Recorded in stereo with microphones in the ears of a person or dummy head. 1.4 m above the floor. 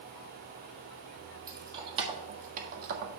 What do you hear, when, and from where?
1.5 s keys jangling: 20° right (ahead or behind), 1.7 m; by 3.2 s 60° right (ahead or behind), 1.4 m